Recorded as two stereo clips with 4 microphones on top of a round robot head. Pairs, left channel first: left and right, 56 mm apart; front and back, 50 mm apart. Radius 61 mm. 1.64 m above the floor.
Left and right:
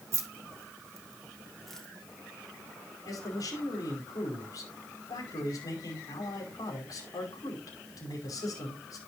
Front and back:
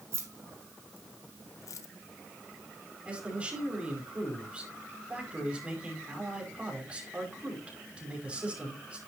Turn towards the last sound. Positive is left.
turn(degrees=110)